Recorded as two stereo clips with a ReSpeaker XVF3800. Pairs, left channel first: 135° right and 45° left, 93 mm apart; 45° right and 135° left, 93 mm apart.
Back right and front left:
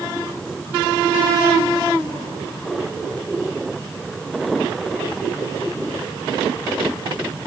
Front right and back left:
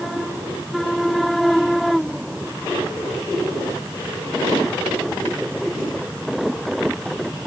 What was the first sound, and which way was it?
Only background noise.